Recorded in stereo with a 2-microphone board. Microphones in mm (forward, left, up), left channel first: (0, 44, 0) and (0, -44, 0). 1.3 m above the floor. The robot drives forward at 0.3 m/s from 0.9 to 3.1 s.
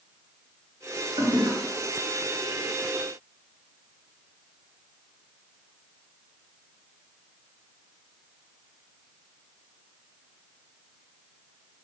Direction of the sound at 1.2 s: 70° right (ahead or behind).